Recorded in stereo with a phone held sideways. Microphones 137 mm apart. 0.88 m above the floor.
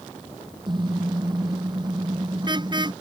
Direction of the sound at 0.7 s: 35° right (ahead or behind).